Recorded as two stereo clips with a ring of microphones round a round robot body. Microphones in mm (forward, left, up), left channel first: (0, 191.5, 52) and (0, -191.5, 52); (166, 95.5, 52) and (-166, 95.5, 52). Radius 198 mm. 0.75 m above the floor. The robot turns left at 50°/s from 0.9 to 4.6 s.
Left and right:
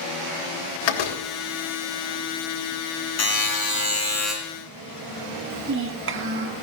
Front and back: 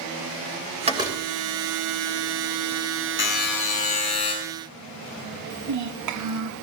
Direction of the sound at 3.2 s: 55° left.